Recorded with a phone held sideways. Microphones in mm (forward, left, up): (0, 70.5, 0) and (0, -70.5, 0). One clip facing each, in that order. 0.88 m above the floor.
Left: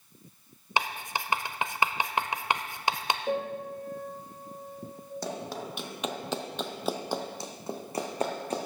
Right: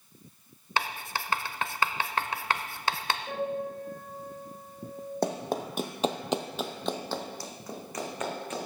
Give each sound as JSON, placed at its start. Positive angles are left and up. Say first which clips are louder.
{"t": 0.8, "sound": "writing", "louder": "left 1 dB", "side_deg": 15, "distance_m": 0.7}
{"t": 3.3, "sound": "a piano", "louder": "even", "side_deg": 75, "distance_m": 3.5}
{"t": 5.2, "sound": "running footsteps", "louder": "right 6 dB", "side_deg": -55, "distance_m": 1.6}